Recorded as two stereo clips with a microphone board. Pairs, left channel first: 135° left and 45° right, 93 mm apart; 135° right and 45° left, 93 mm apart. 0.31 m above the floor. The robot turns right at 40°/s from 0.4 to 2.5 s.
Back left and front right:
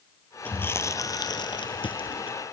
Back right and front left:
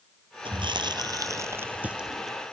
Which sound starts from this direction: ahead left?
Chewing, at 0.5 s.